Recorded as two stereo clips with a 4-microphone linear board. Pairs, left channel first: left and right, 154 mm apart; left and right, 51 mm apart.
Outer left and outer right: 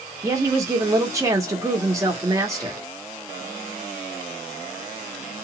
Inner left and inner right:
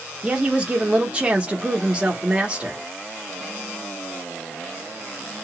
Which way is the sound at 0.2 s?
20° right (ahead or behind).